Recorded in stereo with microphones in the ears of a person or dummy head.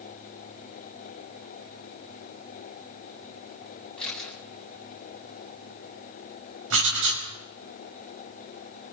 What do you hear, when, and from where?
4.0 s a camera shutter: centre (ahead or behind), 9 m
6.7 s writing: 75° right (ahead or behind), 6 m